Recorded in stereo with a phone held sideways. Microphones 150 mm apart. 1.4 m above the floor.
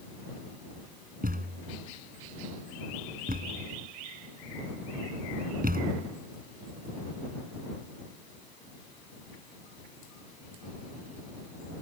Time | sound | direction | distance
1.2 | a thud | 80° right | ?